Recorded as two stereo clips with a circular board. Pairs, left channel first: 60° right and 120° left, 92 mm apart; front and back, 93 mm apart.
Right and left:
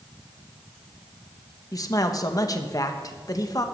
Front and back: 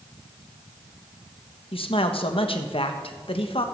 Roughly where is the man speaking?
Ahead.